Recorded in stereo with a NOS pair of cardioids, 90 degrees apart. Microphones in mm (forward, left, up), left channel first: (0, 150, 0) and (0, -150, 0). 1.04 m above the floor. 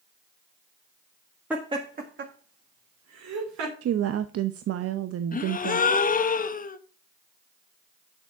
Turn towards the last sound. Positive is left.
turn(degrees=30)